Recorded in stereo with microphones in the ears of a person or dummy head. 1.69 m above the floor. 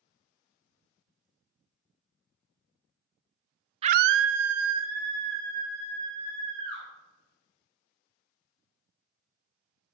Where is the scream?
30° right (ahead or behind), 0.6 m; by 6.9 s 65° right (ahead or behind), 4.5 m.